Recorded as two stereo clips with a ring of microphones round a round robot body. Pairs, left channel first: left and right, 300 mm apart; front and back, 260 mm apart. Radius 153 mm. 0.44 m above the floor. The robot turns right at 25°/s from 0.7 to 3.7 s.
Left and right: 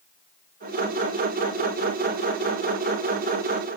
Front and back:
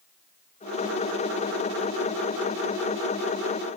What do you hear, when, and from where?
Only background noise.